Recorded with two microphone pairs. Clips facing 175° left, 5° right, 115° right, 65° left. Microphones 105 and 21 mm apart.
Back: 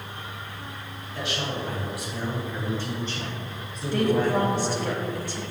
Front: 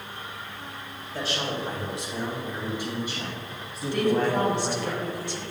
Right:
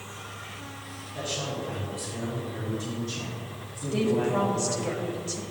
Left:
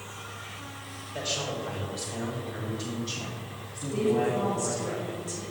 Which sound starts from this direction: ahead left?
A man speaking, at 1.1 s.